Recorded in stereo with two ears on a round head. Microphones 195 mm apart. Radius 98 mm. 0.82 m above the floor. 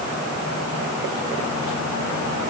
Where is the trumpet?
I don't hear a trumpet.